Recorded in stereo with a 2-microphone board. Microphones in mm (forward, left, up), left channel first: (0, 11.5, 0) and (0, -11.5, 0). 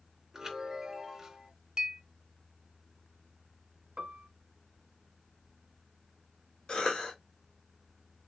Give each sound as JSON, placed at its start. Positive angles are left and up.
{"t": 0.3, "sound": "a chime", "side_deg": -20, "distance_m": 2.0}
{"t": 1.8, "sound": "a clink", "side_deg": -35, "distance_m": 0.5}
{"t": 4.0, "sound": "a piano", "side_deg": -60, "distance_m": 0.5}
{"t": 6.7, "sound": "a cough", "side_deg": 45, "distance_m": 1.6}